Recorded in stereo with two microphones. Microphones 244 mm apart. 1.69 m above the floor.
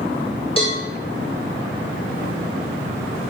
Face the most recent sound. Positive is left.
turn(degrees=25)  # may be behind; listen again after turning